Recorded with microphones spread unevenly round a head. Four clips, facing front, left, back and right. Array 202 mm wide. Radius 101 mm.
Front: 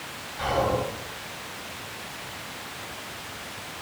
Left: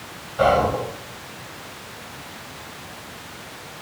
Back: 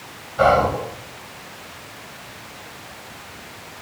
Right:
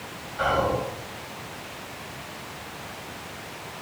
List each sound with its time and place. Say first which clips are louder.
0.4 s whispering: left 6 dB, back 9 dB; 135° left, 6.5 m